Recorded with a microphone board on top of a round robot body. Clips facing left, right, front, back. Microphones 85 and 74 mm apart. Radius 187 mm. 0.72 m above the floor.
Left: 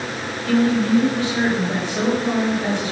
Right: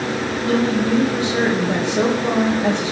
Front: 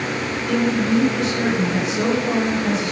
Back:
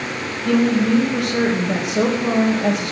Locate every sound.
0.5 s a woman speaking: 160° right, 4.5 m